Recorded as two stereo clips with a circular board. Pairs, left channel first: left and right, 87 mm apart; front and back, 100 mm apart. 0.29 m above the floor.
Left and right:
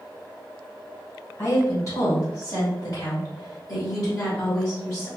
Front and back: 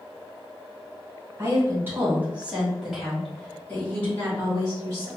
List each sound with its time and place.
1.4 s a woman speaking: 130° left, 1.8 m; by 5.1 s 50° left, 1.9 m